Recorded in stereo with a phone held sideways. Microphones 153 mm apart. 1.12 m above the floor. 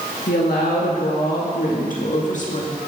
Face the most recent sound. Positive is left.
turn(degrees=45)  # may be behind; listen again after turning